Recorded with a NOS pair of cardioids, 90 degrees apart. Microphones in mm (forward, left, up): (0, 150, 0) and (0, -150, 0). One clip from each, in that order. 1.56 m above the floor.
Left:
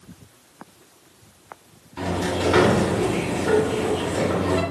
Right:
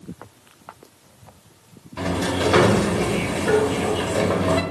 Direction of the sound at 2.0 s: 20° right.